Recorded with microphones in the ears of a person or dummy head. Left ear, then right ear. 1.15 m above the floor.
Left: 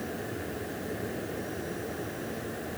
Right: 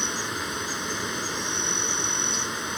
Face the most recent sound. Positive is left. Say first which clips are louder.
# right 8 dB
turn(degrees=-55)  # may be behind; listen again after turning